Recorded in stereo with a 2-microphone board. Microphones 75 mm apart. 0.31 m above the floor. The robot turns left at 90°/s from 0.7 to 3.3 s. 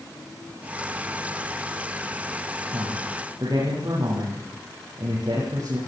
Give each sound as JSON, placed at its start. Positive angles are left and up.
{"t": 2.7, "sound": "a man speaking", "side_deg": -65, "distance_m": 9.5}